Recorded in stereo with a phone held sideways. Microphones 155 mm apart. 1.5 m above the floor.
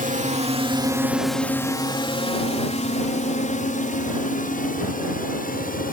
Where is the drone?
55° right (ahead or behind); by 5.9 s 65° left (ahead or behind).